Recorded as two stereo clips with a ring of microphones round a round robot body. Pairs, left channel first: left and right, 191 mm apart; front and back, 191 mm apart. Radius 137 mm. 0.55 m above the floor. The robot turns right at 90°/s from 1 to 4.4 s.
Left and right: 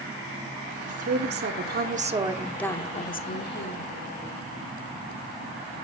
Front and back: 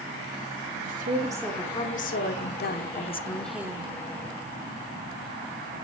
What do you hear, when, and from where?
0.9 s a woman speaking: 135° right, 1.4 m; by 3.9 s 125° left, 1.4 m